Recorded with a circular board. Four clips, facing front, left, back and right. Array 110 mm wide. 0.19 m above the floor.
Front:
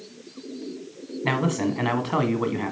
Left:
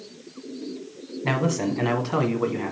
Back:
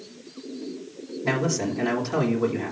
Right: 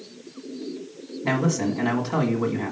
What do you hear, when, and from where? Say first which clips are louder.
1.2 s a man speaking: right 1 dB, front 1 dB; 10° left, 1.4 m